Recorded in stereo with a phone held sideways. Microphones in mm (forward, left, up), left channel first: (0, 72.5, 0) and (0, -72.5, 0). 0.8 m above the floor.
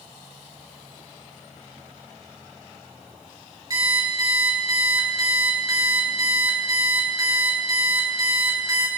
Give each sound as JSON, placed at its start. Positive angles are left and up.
{"t": 3.7, "sound": "an alarm clock", "side_deg": -25, "distance_m": 5.0}